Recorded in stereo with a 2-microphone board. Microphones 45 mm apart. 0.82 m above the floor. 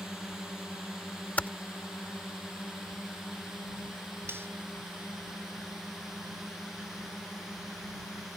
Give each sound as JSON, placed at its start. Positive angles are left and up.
{"t": 0.0, "sound": "a drone", "side_deg": -10}
{"t": 1.4, "sound": "typing on a keyboard", "side_deg": 35}
{"t": 4.3, "sound": "cutlery clinking", "side_deg": -60}